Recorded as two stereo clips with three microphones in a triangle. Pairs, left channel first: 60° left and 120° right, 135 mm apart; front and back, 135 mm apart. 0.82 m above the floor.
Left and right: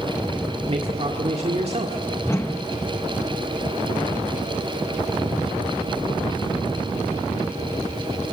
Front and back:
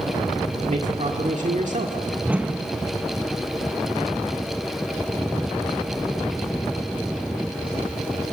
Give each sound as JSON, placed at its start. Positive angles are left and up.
{"t": 0.7, "sound": "a man speaking", "azimuth_deg": -160, "distance_m": 1.6}
{"t": 2.2, "sound": "a whoosh", "azimuth_deg": 115, "distance_m": 0.9}